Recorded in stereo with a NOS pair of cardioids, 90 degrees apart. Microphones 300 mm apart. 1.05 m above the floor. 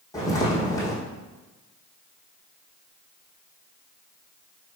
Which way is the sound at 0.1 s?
10° left.